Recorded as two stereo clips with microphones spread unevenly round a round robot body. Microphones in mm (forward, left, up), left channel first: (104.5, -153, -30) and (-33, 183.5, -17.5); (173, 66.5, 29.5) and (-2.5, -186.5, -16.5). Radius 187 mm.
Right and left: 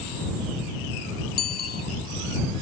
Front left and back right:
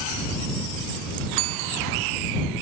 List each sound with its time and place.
1.4 s a bicycle bell: 135° right